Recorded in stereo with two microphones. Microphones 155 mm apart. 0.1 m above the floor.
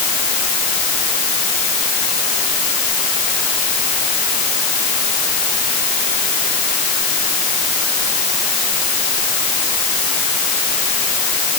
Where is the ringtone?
I don't hear a ringtone.